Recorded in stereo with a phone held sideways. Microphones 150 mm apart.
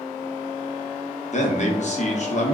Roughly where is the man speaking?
Left.